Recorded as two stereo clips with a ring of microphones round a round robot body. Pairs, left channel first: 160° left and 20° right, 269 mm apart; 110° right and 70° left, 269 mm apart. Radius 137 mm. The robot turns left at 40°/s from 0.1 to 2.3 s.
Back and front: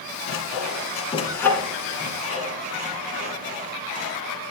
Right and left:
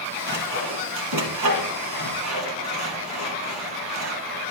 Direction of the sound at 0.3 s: 120° left.